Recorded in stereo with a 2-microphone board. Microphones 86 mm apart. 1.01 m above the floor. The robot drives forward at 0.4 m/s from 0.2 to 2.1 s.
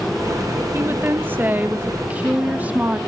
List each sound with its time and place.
0.7 s a woman speaking: 25° right (ahead or behind), 0.9 m; by 3.0 s 20° right (ahead or behind), 1.3 m